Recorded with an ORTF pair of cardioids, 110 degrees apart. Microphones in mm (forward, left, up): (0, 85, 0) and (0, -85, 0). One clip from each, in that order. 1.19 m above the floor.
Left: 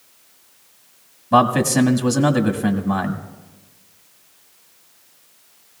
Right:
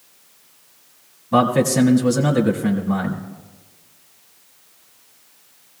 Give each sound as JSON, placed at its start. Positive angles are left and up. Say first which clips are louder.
{"t": 1.3, "sound": "a man speaking", "louder": "left 1 dB", "azimuth_deg": 50, "distance_m": 1.6}